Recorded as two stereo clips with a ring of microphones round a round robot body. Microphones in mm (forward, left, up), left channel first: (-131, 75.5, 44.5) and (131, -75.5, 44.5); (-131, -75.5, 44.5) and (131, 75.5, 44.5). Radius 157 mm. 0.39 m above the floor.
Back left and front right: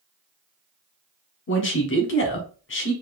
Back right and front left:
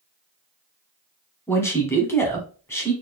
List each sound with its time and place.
1.5 s a man speaking: 130° left, 1.1 m